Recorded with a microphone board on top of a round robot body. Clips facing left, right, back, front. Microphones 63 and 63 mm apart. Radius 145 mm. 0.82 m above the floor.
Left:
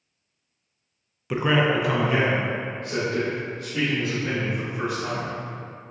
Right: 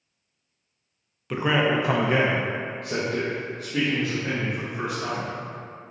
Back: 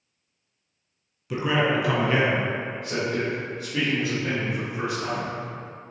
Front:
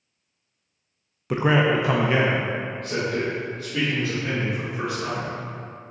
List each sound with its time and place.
1.3 s a man speaking: 10° left, 0.5 m; by 5.3 s 110° right, 2 m